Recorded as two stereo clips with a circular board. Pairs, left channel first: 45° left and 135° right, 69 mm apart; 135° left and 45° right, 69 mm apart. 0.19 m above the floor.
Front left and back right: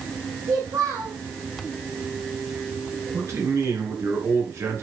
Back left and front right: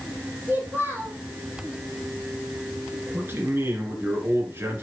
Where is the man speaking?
100° right, 3 m.